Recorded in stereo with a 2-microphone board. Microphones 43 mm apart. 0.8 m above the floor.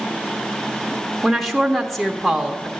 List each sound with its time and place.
1.2 s a woman speaking: 5° left (ahead or behind), 0.8 m